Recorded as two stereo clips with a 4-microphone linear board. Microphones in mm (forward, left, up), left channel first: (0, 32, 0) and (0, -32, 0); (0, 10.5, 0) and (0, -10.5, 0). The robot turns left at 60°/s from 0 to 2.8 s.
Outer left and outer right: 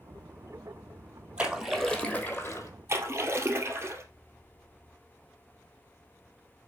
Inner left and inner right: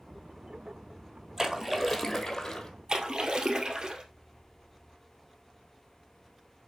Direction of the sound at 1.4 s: 155° right.